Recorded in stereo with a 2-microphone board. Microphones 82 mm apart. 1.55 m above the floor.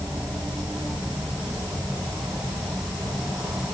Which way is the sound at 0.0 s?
25° right (ahead or behind).